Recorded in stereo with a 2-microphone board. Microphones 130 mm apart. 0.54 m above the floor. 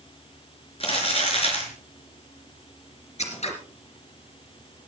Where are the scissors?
60° left (ahead or behind), 3 m.